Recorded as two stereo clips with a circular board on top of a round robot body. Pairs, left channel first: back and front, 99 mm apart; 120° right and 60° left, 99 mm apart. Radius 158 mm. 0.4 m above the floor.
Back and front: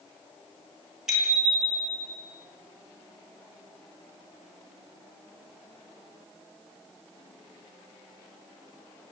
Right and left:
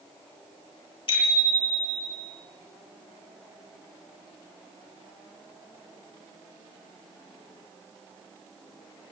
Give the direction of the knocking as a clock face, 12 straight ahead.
I don't hear knocking.